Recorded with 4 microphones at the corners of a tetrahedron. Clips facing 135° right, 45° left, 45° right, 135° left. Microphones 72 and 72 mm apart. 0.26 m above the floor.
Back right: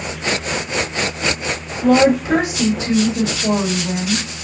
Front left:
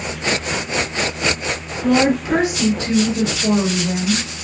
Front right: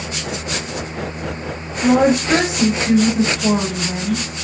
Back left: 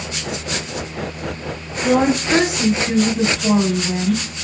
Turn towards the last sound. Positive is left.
turn(degrees=10)